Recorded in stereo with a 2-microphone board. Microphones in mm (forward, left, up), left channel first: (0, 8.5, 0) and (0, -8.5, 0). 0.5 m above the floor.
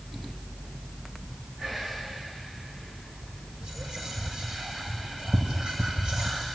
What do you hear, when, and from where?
1.6 s whispering: 70° right (ahead or behind), 7 m
3.6 s whispering: 60° right (ahead or behind), 2 m